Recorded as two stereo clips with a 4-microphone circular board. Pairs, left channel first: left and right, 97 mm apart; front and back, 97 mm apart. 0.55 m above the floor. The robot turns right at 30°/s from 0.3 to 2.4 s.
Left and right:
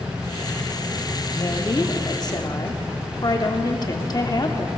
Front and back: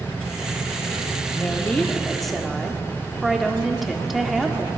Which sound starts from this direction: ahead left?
A woman speaking, at 1.3 s.